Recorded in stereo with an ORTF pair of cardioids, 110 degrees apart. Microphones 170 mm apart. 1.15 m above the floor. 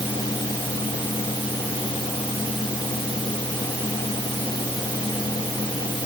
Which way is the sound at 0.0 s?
25° left.